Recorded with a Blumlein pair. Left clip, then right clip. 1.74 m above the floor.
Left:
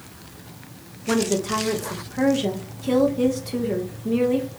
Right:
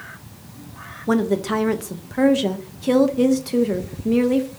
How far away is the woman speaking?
About 0.5 m.